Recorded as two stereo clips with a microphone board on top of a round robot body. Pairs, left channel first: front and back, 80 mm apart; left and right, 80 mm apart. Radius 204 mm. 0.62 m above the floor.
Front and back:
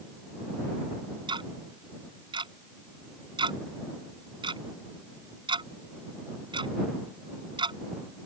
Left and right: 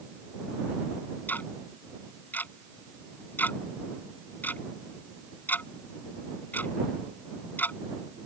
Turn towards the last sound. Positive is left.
turn(degrees=160)